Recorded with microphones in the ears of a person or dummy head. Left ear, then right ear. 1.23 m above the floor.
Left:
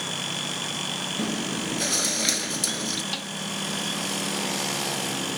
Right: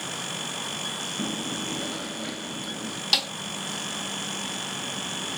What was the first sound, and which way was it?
Chewing, 80° left.